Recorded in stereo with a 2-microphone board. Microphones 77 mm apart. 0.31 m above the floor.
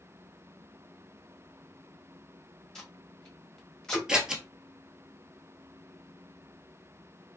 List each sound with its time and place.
2.8 s tape being pulled: 5° left (ahead or behind), 1.0 m
4.1 s scissors: 10° right (ahead or behind), 0.9 m